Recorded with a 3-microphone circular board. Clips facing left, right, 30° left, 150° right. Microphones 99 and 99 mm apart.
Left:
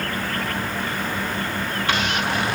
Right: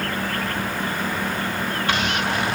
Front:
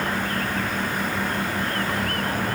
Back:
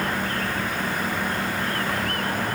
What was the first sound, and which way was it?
Only background noise.